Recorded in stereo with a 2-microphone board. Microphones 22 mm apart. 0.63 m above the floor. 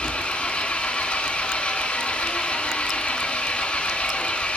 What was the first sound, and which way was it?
An engine running, 65° left (ahead or behind).